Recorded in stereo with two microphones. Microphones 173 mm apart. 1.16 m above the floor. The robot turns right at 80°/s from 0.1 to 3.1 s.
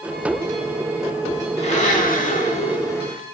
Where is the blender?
45° left, 1.1 m; by 3.2 s 170° left, 1.1 m.